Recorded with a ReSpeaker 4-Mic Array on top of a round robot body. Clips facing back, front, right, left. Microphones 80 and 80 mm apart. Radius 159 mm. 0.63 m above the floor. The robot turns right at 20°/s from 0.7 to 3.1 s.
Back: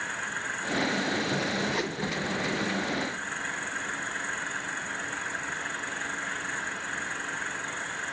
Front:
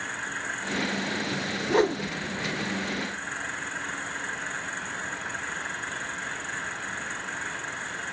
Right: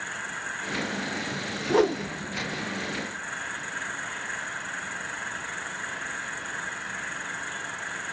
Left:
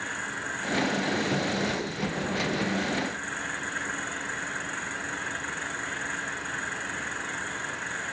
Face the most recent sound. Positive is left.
turn(degrees=-30)